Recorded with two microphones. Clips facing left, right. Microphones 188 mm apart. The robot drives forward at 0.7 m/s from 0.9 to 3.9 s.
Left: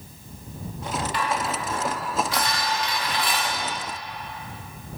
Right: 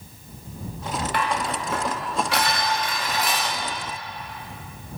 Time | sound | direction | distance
1.1 | dishes clattering | 60° right (ahead or behind) | 1.0 m